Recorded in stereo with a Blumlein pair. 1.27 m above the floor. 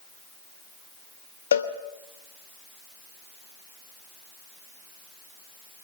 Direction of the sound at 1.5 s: 65° left.